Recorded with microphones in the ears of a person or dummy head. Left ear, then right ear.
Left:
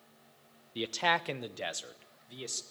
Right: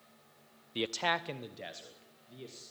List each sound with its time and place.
0.8 s a man speaking: 25° right (ahead or behind), 0.5 m; by 2.6 s 55° left (ahead or behind), 1.7 m